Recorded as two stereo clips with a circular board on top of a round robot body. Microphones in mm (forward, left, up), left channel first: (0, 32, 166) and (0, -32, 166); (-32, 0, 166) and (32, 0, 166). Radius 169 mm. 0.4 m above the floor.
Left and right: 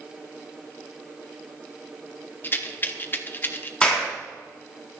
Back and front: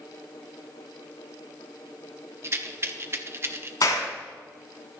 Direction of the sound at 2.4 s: 40° left.